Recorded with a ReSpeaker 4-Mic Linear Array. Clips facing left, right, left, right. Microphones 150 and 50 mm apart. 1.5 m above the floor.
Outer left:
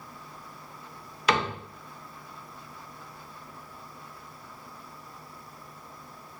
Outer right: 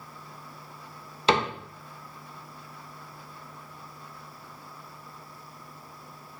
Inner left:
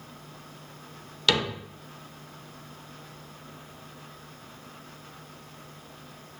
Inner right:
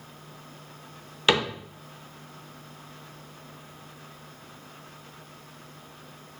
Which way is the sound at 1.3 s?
25° right (ahead or behind).